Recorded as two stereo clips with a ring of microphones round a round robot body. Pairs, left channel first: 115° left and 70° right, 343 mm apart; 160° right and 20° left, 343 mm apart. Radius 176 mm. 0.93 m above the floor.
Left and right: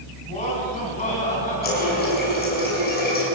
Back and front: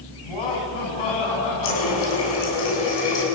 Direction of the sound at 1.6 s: Straight behind.